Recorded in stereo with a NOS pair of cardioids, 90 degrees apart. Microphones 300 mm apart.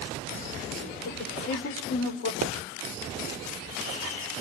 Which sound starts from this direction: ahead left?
A woman speaking, at 1.1 s.